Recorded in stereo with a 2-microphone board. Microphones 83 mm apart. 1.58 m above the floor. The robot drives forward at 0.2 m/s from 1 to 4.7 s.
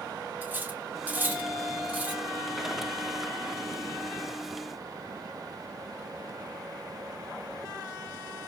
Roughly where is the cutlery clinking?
Right.